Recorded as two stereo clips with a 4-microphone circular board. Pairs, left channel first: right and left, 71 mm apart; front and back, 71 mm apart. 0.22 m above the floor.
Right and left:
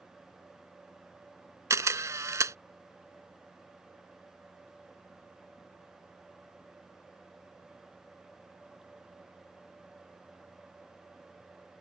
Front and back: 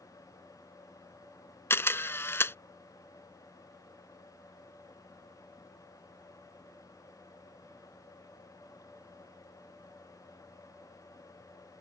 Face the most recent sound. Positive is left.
turn(degrees=50)